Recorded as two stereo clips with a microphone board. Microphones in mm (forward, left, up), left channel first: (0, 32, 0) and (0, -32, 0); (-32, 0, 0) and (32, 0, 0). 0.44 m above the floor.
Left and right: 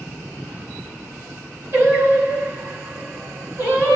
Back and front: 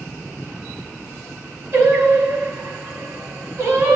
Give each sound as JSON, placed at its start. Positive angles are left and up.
{"t": 1.7, "sound": "singing", "azimuth_deg": -40, "distance_m": 3.5}